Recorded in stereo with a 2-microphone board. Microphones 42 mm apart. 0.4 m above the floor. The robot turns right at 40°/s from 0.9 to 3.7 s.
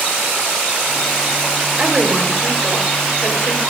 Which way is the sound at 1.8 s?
35° right.